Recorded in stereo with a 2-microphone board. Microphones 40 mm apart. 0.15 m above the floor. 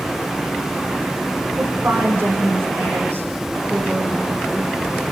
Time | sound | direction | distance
1.6 | a woman speaking | 80° right | 8 m